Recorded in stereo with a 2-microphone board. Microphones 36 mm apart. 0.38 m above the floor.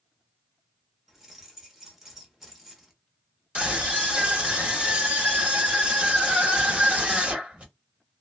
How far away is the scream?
About 1.5 m.